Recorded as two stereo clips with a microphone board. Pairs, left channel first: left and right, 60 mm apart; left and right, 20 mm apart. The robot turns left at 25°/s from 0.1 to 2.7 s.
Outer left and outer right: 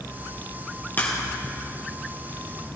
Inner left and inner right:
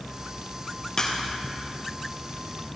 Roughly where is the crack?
Left.